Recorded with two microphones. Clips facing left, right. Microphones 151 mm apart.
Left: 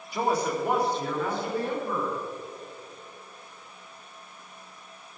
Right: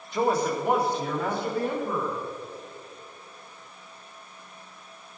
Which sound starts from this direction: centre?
A man speaking, at 0.1 s.